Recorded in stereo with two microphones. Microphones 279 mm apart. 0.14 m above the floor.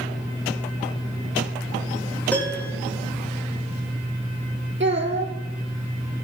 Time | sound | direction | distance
2.3 | a piano | 5° left (ahead or behind) | 4 m
4.8 | a child speaking | 40° right (ahead or behind) | 2 m